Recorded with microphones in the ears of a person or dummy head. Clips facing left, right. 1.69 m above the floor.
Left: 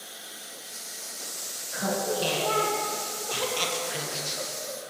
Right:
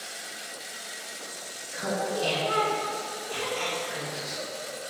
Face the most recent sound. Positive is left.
turn(degrees=30)  # may be behind; listen again after turning